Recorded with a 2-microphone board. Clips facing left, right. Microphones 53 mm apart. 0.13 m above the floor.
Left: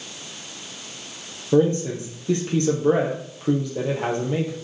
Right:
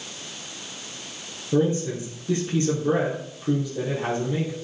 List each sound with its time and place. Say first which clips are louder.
1.5 s a man speaking: left 4 dB; 70° left (ahead or behind), 3.5 m